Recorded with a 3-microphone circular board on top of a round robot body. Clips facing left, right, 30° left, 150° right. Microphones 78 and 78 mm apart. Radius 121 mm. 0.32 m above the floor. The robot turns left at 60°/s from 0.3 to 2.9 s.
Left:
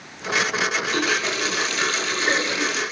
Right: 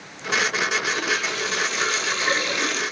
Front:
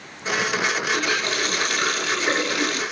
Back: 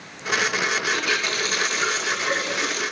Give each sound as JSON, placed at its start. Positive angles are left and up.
{"t": 0.9, "sound": "a running tap", "azimuth_deg": 110, "distance_m": 9.5}